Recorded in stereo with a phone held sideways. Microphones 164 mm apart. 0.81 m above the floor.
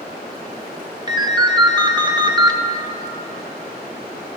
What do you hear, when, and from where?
1.1 s a ringtone: 25° right (ahead or behind), 0.6 m